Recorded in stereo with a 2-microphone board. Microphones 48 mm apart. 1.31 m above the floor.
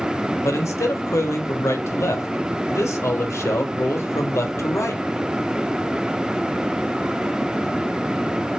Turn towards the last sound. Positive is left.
turn(degrees=80)